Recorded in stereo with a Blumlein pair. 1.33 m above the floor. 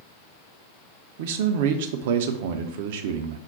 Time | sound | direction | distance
1.2 | a man speaking | 50° right | 0.5 m